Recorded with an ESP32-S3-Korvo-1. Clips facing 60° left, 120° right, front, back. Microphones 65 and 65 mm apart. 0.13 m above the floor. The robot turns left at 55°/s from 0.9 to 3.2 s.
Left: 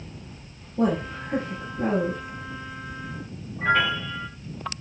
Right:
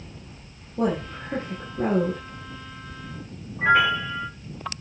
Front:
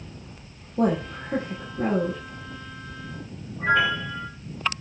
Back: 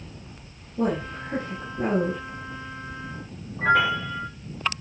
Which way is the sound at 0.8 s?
40° right.